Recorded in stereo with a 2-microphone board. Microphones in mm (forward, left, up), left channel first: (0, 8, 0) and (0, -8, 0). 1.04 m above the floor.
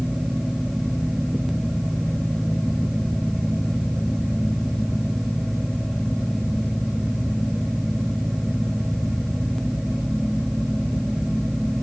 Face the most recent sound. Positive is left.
No sound to turn to.